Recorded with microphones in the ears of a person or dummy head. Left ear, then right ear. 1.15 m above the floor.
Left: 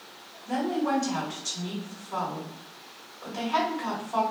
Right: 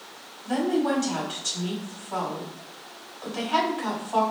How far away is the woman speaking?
About 1.7 m.